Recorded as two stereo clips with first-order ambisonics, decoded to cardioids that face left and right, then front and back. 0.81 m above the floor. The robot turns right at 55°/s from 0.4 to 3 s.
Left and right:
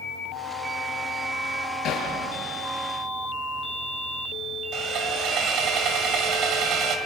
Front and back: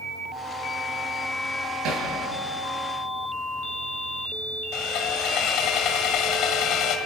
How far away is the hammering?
About 6 m.